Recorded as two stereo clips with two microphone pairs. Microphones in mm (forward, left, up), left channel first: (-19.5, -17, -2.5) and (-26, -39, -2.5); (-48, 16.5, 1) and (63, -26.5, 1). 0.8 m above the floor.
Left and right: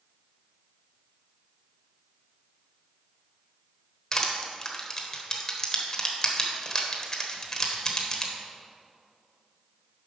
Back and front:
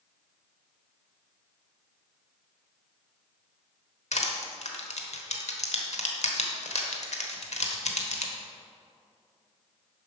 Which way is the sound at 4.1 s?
145° left.